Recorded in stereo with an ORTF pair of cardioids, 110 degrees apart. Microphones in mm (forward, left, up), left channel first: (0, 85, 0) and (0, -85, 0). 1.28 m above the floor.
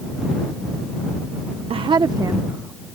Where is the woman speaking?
35° right; by 2.9 s 10° right.